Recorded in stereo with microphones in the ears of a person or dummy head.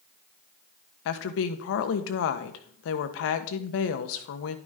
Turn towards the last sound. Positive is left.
turn(degrees=65)  # may be behind; listen again after turning